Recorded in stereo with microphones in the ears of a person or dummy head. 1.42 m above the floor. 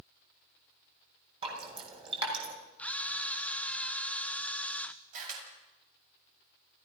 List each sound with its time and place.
1.4 s dripping: 30° right (ahead or behind), 7 m
2.8 s a camera shutter: 10° left (ahead or behind), 0.8 m
5.1 s a camera shutter: 45° right (ahead or behind), 8 m